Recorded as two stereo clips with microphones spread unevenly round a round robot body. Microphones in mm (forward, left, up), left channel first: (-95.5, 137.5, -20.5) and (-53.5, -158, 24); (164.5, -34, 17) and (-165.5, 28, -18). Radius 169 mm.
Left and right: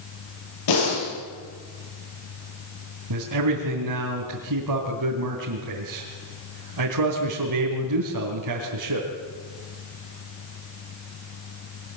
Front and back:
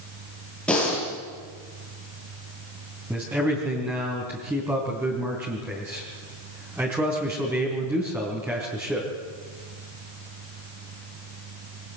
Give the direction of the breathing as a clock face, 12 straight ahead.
9 o'clock.